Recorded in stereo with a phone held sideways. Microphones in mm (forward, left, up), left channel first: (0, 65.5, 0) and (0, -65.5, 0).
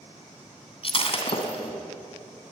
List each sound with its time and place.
0.8 s breaking glass: 45° left (ahead or behind), 3 m